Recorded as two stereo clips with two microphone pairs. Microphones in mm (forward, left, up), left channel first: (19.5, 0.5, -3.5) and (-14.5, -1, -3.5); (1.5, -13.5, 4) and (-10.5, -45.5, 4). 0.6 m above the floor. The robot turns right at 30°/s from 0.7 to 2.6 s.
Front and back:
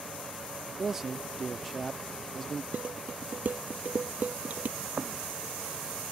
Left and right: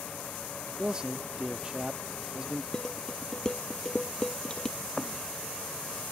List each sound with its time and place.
0.8 s a man speaking: 130° right; by 2.6 s 75° right
2.7 s dishes clattering: 140° left
4.8 s a thud: 155° left